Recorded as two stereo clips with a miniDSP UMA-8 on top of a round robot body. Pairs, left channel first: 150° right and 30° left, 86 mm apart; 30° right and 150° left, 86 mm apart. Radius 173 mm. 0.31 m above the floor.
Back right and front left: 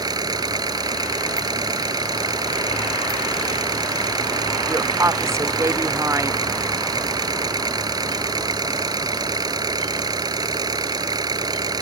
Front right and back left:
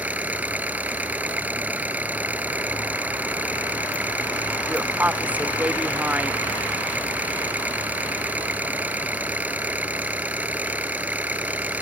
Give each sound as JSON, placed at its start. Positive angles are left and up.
{"t": 0.0, "sound": "an engine running", "azimuth_deg": 75}
{"t": 4.7, "sound": "a woman speaking", "azimuth_deg": 80}